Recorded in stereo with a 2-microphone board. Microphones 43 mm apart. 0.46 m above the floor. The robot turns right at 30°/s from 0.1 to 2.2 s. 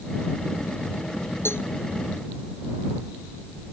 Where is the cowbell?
70° left (ahead or behind); by 1.7 s 60° left (ahead or behind).